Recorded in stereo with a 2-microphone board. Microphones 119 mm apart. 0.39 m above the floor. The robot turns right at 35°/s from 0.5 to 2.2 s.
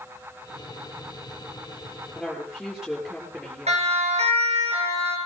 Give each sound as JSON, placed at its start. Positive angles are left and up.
{"t": 2.1, "sound": "a woman speaking", "side_deg": 0, "distance_m": 7.5}
{"t": 3.7, "sound": "a siren", "side_deg": -65, "distance_m": 6.5}